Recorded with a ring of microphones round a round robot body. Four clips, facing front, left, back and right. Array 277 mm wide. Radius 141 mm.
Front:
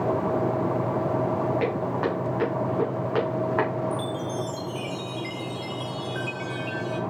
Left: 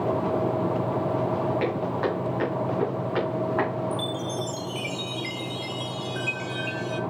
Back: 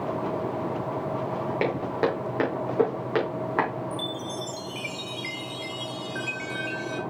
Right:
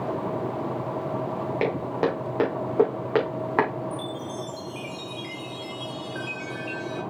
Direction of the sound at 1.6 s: 135° right.